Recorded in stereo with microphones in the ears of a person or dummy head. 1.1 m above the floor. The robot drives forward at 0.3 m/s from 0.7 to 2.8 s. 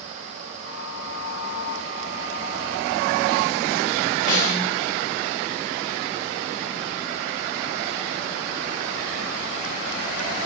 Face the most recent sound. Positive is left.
turn(degrees=-40)  # may be behind; listen again after turning